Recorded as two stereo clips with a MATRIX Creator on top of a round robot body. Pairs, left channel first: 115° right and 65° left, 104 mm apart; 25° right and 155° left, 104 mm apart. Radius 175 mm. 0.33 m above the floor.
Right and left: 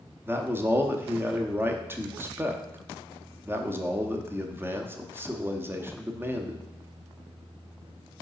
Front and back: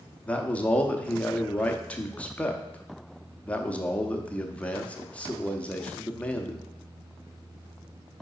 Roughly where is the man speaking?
Ahead left.